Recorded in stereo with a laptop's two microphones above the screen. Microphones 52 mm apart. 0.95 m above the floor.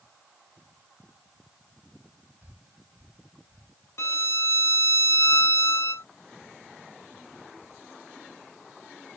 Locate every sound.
2.4 s breathing: 40° right (ahead or behind)
4.0 s a violin: 65° left (ahead or behind)